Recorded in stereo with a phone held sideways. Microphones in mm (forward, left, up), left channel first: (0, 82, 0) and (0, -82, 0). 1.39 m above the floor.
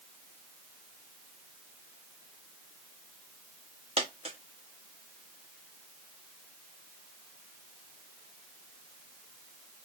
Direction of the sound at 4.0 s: 40° right (ahead or behind).